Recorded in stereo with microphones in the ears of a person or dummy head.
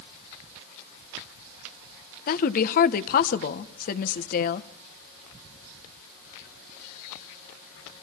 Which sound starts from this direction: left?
A woman speaking, at 2.3 s.